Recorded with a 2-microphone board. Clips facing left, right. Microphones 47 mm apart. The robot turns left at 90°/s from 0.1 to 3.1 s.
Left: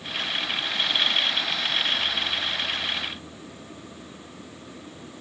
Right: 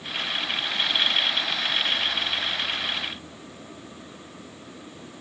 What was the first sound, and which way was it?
Only background noise.